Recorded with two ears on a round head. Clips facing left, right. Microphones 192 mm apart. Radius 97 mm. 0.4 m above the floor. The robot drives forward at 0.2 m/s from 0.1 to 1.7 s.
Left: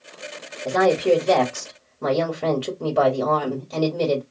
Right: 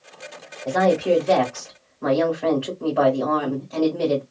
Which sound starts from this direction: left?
A woman speaking, at 0.7 s.